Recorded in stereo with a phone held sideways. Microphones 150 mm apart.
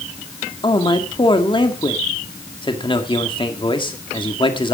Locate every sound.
0.6 s a man speaking: 35° left (ahead or behind), 1.9 m